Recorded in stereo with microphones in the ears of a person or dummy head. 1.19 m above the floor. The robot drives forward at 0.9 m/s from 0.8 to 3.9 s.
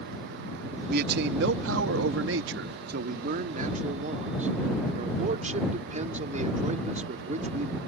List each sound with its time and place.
0.9 s a man speaking: 60° right (ahead or behind); by 7.8 s 40° right (ahead or behind)